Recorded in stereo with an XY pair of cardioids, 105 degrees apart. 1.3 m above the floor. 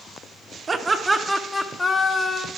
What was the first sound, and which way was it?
Laughter, 35° right.